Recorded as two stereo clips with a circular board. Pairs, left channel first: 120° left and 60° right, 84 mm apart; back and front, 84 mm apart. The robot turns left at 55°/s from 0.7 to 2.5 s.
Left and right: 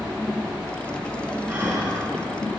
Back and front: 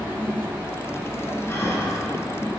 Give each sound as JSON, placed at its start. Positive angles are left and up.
{"t": 1.5, "sound": "breathing", "azimuth_deg": -120, "distance_m": 2.0}